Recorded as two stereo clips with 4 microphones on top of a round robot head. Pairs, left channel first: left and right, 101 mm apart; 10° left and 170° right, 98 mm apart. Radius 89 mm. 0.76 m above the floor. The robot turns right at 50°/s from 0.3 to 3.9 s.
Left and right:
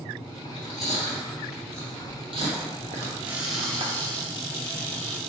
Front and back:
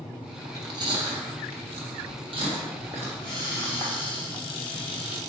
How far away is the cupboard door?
About 1.4 m.